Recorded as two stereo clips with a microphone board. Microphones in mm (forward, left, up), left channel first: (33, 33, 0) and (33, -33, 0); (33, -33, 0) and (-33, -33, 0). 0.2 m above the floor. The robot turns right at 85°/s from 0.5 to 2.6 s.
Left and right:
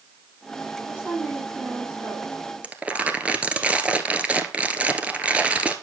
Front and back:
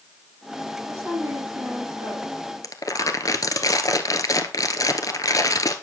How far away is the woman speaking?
About 5 m.